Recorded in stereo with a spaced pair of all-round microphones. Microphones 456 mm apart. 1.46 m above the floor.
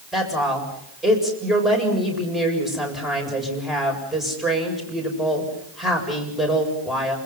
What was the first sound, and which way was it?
A woman speaking, centre (ahead or behind).